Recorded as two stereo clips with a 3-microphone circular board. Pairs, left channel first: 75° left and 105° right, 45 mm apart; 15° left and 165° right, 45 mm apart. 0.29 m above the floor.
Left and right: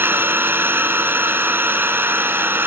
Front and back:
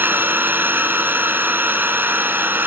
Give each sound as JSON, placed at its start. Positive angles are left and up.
{"t": 0.0, "sound": "an engine running", "azimuth_deg": -130, "distance_m": 1.8}